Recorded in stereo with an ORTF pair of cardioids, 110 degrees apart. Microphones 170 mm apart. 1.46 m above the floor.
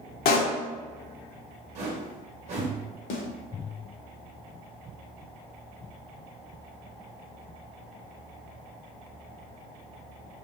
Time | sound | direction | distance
0.2 | a pop | 70° left | 0.7 m
1.8 | a whoosh | 50° right | 1.1 m
3.1 | a snare drum | 60° left | 0.8 m